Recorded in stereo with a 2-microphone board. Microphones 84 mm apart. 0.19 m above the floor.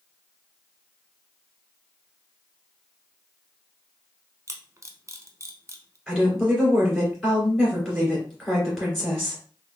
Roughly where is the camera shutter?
Right.